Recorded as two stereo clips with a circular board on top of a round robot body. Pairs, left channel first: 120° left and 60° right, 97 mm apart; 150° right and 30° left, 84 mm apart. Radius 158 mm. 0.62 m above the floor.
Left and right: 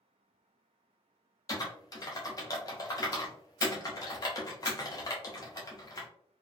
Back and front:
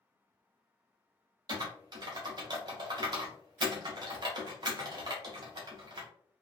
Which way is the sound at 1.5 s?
70° left.